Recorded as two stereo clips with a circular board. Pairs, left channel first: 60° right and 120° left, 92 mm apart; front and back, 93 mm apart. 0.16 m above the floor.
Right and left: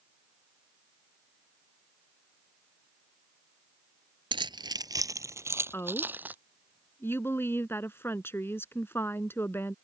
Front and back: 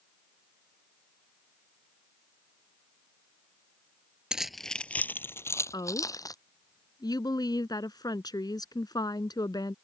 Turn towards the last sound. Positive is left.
turn(degrees=-5)